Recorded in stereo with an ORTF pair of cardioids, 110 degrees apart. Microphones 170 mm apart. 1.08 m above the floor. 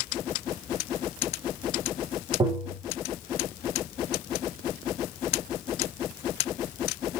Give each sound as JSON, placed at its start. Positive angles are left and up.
{"t": 2.4, "sound": "tapping", "azimuth_deg": -25, "distance_m": 1.5}